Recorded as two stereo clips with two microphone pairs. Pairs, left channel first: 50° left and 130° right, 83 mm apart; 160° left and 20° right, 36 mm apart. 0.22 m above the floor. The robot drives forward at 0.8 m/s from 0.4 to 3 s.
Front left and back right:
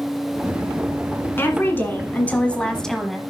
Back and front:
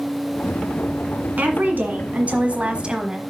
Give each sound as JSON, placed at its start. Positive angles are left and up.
{"t": 1.4, "sound": "a woman speaking", "azimuth_deg": -10, "distance_m": 1.9}